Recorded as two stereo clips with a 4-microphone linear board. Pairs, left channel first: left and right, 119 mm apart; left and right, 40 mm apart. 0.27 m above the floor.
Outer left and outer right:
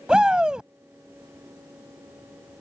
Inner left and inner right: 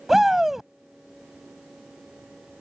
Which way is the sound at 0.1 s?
5° right (ahead or behind).